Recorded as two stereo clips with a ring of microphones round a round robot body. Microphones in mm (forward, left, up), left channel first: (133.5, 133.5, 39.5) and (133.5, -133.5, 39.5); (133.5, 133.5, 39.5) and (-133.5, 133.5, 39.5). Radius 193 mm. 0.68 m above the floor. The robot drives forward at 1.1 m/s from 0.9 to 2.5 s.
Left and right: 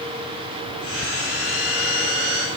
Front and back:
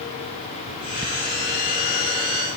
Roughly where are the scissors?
No scissors in this recording.